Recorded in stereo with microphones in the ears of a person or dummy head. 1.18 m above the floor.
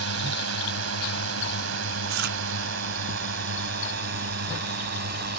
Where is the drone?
75° right (ahead or behind); by 5.4 s 55° right (ahead or behind).